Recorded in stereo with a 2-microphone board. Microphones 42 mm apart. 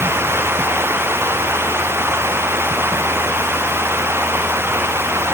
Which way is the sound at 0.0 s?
75° right (ahead or behind).